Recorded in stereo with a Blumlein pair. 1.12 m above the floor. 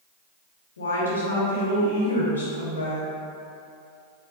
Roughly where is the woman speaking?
Left.